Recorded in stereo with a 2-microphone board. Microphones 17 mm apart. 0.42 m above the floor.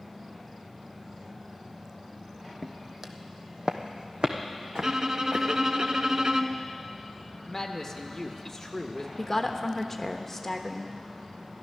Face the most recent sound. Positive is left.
turn(degrees=15)  # may be behind; listen again after turning